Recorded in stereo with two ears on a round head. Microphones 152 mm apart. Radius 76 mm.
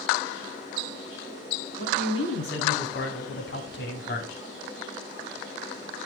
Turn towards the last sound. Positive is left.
turn(degrees=80)